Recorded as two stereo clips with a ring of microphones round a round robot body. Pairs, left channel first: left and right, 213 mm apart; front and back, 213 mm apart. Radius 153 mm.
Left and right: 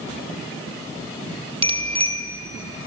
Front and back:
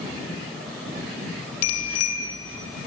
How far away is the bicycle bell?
About 3 m.